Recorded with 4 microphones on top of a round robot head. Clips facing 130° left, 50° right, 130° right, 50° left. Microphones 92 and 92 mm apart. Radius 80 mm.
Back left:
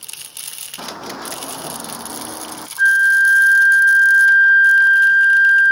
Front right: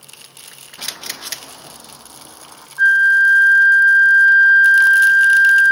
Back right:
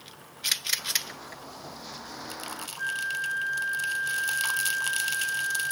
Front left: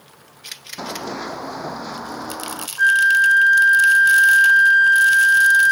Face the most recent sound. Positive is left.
turn(degrees=25)